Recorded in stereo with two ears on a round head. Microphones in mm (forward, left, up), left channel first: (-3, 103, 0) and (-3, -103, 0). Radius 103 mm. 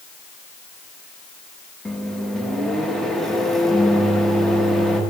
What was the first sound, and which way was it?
A microwave, centre (ahead or behind).